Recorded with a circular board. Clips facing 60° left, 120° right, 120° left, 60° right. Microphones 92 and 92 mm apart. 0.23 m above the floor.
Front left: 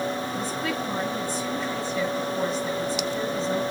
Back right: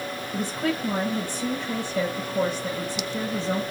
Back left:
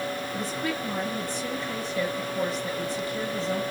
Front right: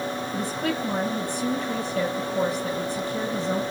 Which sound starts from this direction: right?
A woman speaking, at 0.3 s.